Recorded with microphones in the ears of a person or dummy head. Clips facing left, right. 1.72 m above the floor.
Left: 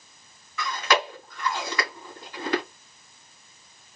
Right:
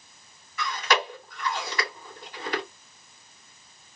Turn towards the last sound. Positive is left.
turn(degrees=60)  # may be behind; listen again after turning